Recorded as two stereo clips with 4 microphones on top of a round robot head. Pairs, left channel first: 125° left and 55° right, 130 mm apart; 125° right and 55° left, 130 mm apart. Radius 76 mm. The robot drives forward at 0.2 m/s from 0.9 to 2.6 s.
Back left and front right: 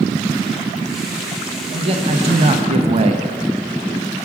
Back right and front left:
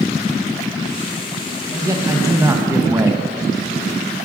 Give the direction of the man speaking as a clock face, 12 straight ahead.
12 o'clock.